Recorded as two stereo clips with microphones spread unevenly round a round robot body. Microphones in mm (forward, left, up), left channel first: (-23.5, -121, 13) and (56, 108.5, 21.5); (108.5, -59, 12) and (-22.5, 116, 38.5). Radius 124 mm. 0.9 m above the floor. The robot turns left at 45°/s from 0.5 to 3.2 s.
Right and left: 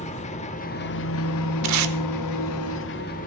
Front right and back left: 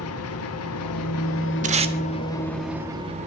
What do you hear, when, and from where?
0.0 s an engine running: 45° right, 1.1 m; by 3.3 s 170° right, 1.1 m
1.6 s tape being pulled: 80° left, 0.9 m; by 1.9 s 65° left, 0.9 m